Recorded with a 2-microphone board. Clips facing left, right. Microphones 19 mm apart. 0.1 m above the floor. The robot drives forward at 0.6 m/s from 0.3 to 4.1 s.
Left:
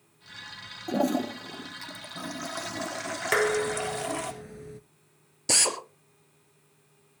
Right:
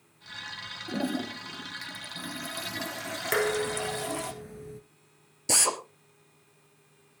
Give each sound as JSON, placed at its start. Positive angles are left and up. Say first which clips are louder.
{"t": 0.9, "sound": "a toilet flushing", "louder": "left 5 dB", "side_deg": 65, "distance_m": 0.8}
{"t": 3.3, "sound": "dishes clattering", "louder": "left 2 dB", "side_deg": 15, "distance_m": 0.8}
{"t": 5.5, "sound": "a drill", "louder": "left 1 dB", "side_deg": 15, "distance_m": 2.5}